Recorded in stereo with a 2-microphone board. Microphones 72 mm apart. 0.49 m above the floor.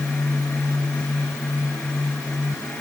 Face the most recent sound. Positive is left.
No sound to turn to.